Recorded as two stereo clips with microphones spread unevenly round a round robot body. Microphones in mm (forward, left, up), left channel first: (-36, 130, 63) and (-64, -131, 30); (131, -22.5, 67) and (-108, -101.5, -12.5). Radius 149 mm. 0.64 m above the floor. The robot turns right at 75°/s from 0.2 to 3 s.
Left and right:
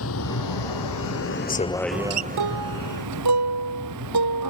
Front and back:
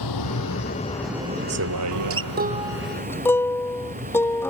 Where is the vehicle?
35° left; by 4.5 s 100° right.